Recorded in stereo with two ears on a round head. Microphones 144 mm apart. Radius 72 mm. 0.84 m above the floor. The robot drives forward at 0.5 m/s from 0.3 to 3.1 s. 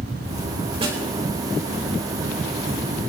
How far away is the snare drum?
About 4.5 m.